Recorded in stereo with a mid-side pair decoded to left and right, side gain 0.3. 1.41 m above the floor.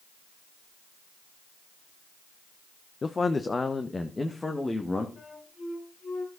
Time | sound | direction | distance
3.0 | a man speaking | 45° left | 0.9 m
5.2 | a flute | 60° left | 4.5 m